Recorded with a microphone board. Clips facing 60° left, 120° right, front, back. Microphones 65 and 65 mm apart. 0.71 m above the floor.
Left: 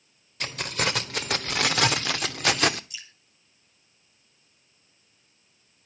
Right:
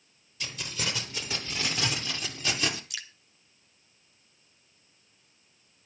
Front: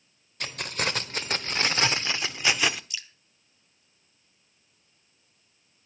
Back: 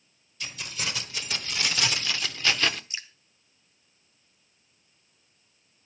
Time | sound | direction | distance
0.4 | keys jangling | 30° left | 1.6 m
2.9 | dripping | 120° right | 1.4 m